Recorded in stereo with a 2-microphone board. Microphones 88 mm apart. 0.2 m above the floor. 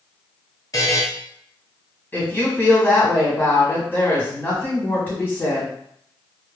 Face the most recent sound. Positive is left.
turn(degrees=20)  # may be behind; listen again after turning